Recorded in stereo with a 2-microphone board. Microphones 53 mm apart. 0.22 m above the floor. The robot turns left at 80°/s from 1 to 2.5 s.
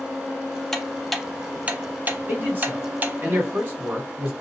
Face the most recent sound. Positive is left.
turn(degrees=-35)  # may be behind; listen again after turning